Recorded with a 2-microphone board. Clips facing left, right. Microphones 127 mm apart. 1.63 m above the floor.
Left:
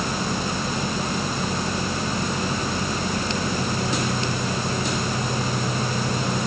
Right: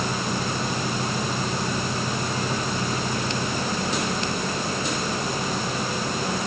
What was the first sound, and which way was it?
Only background noise.